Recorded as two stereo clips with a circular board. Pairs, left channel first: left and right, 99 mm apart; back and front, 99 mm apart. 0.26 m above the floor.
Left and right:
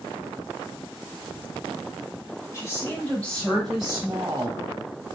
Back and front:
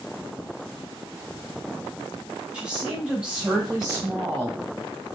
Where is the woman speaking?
70° left, 1.1 m; by 4.6 s 75° right, 1.1 m.